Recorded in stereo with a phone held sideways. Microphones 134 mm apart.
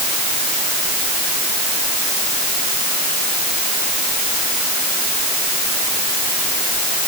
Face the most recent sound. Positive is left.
No sound to turn to.